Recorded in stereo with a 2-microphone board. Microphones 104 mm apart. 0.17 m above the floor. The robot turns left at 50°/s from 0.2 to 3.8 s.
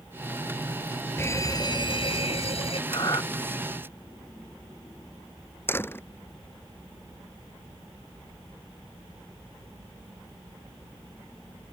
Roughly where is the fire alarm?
Behind left.